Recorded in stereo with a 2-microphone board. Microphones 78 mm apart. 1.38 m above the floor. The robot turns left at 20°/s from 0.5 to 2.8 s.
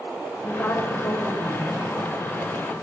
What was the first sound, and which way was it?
A woman speaking, 25° left (ahead or behind).